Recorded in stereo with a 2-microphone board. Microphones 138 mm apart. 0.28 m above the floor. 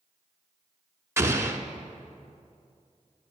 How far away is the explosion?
About 0.9 m.